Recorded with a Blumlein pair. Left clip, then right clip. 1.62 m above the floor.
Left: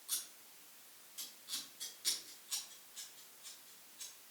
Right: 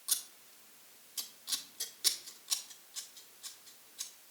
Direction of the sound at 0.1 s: 45° right.